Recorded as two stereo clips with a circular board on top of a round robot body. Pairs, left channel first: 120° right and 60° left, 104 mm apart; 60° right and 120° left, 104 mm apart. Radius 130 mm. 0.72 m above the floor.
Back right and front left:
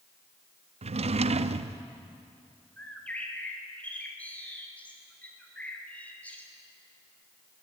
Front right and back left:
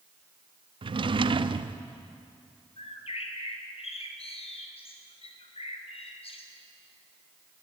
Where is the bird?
45° right, 2.5 m.